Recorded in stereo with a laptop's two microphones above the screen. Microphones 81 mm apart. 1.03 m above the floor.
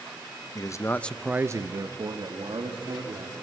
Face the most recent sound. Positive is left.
turn(degrees=-80)